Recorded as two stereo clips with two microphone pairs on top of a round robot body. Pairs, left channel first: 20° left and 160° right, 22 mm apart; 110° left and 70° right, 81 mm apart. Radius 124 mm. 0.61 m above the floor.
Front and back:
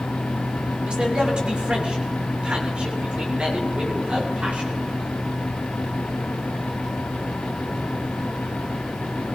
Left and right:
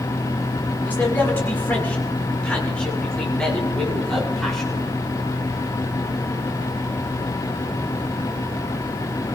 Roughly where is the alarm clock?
I don't hear an alarm clock.